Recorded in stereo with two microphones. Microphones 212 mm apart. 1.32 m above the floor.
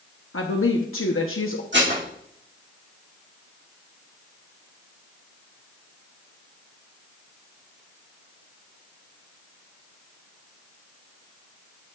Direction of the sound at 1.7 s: 60° right (ahead or behind).